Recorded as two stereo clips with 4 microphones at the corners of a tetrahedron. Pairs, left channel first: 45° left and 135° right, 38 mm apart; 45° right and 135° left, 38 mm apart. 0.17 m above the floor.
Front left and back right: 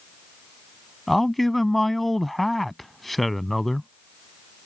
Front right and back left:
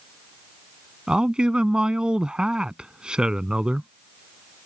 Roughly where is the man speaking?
Behind left.